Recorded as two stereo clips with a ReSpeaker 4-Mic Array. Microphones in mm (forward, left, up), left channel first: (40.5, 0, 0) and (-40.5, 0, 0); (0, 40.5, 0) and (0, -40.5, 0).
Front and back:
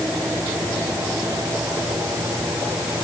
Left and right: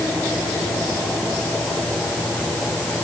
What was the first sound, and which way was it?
Only background noise.